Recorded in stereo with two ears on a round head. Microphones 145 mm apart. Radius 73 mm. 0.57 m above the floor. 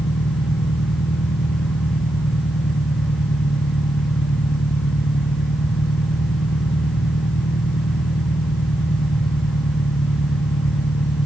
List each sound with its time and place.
0.0 s an engine running: 75° left (ahead or behind)